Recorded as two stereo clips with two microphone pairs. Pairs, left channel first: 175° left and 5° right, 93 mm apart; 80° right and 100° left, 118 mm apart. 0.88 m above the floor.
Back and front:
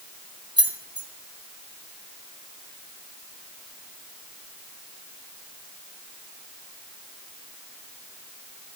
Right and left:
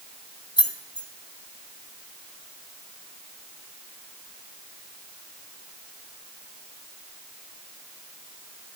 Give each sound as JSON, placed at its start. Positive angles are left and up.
{"t": 0.6, "sound": "keys jangling", "azimuth_deg": -35, "distance_m": 0.7}